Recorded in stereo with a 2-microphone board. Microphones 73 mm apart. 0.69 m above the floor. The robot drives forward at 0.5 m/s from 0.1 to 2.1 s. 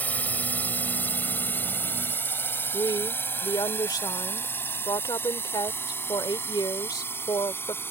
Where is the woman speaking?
70° left (ahead or behind).